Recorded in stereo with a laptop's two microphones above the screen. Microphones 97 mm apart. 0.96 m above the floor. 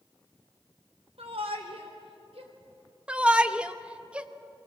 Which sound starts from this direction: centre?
A shout, at 3.1 s.